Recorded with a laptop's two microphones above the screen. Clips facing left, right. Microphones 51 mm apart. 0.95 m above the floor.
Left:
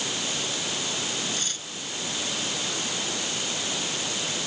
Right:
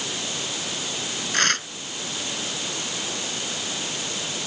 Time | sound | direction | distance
1.3 | tearing paper | 90° right | ?